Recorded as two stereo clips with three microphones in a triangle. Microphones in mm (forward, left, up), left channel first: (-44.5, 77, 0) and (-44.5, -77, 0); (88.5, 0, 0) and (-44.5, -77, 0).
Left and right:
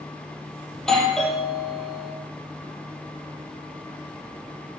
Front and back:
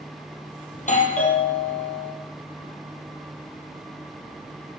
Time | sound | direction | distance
0.7 | a doorbell | 5° left | 4 m